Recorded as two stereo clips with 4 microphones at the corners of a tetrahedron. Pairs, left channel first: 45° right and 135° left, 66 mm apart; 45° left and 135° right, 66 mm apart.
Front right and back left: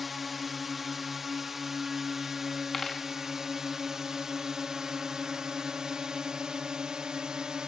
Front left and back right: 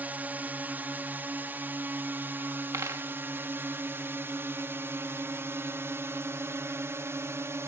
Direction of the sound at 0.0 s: 140° right.